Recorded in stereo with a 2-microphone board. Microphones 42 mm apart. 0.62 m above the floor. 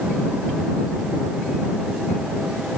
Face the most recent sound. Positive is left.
No sound to turn to.